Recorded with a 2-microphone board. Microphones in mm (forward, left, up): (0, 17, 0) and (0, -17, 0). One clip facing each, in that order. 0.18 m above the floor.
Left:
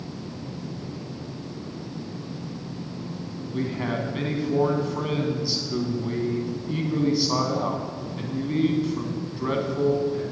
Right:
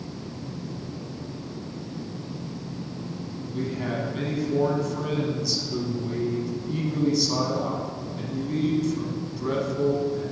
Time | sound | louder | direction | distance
3.5 | a man speaking | left 2 dB | 30° left (ahead or behind) | 1.1 m